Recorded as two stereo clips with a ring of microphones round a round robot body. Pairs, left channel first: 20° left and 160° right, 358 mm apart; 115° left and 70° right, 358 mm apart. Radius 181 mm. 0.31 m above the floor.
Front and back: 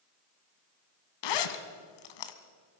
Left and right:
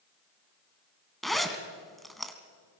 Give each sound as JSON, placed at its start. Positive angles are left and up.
{"t": 1.2, "sound": "a zipper", "azimuth_deg": 25, "distance_m": 1.7}